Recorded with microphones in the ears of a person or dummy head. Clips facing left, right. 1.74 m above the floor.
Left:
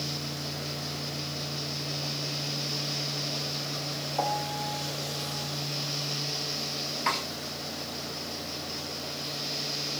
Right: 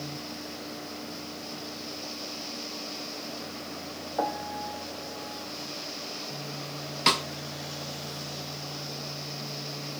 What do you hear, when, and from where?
4.2 s a piano: 25° right (ahead or behind), 1.4 m
7.1 s a snare drum: 50° right (ahead or behind), 1.2 m